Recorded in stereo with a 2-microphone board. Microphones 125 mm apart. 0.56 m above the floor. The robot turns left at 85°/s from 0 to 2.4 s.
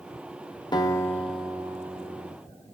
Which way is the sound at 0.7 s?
55° left.